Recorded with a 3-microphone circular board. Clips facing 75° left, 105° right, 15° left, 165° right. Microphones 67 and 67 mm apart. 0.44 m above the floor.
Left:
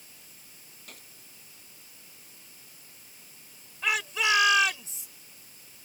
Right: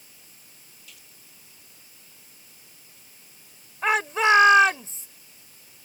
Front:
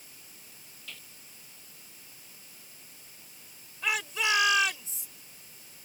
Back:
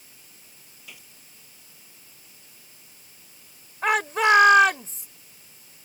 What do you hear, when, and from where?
0.9 s a gunshot: 120° left
3.8 s a shout: 145° right